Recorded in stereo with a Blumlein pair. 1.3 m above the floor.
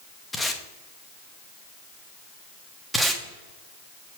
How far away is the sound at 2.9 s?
About 1.2 m.